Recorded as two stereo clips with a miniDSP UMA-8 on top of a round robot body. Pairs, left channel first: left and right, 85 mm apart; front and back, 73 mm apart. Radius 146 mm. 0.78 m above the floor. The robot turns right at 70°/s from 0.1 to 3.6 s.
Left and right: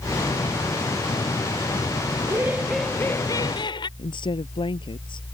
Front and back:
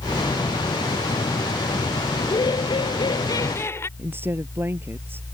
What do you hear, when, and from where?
2.2 s laughter: 40° right; by 3.9 s 60° left
4.0 s a woman speaking: 120° left